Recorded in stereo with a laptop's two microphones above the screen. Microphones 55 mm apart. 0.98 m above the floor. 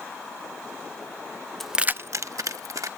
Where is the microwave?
No microwave in this recording.